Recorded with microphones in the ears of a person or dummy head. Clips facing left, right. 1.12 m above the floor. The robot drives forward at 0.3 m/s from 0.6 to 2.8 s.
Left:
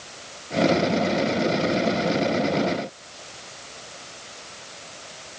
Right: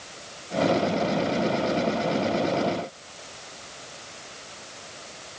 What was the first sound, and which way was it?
Only background noise.